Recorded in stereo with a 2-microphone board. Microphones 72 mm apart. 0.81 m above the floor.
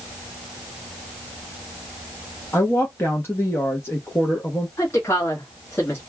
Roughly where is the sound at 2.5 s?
Left.